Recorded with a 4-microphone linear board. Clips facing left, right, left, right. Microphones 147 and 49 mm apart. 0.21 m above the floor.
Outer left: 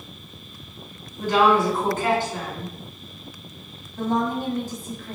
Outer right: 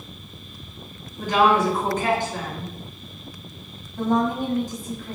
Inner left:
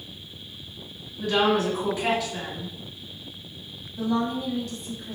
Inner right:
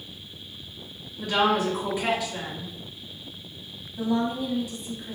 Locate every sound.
1.2 s a woman speaking: 15° right (ahead or behind), 1.8 m
4.0 s a woman speaking: 15° right (ahead or behind), 1.1 m